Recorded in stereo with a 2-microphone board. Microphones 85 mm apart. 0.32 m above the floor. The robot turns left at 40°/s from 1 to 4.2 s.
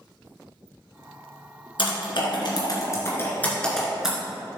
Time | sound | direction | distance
1.8 | typing on a keyboard | 80° left | 2 m